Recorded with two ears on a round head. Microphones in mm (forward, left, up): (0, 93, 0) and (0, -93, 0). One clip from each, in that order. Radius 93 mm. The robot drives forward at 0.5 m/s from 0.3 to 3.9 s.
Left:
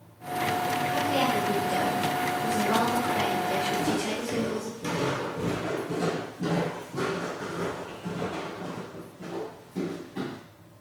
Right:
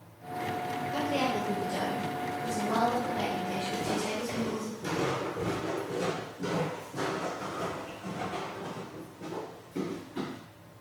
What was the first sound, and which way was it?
A woman speaking, 45° left (ahead or behind).